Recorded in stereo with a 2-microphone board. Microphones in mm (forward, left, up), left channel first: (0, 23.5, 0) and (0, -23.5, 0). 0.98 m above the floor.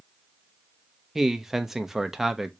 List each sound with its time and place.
1.1 s a man speaking: 5° right (ahead or behind), 0.5 m